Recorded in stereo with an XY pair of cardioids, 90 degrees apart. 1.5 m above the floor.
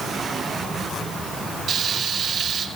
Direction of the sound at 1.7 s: 70° right.